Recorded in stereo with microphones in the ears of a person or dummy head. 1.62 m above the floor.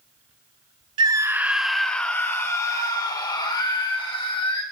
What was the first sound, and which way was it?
A scream, 25° right (ahead or behind).